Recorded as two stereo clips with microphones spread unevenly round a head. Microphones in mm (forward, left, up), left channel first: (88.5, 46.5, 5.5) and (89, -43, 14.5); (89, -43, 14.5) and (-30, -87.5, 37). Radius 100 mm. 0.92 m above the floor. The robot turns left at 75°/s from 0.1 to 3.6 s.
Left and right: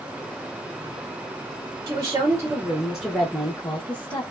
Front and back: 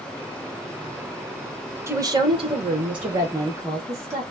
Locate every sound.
1.9 s a woman speaking: 95° right, 1.0 m; by 4.2 s 135° left, 1.0 m